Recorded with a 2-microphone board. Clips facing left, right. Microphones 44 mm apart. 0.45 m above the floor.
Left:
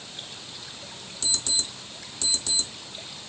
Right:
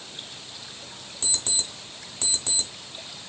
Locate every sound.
1.2 s an alarm clock: 35° right (ahead or behind), 1.0 m